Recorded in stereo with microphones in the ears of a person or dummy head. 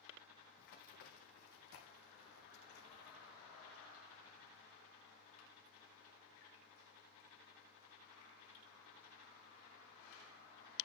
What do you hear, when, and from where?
0.6 s running footsteps: 55° left (ahead or behind), 4 m